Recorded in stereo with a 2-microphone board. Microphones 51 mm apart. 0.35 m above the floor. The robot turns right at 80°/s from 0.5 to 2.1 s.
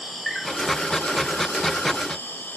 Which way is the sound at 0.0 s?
5° right.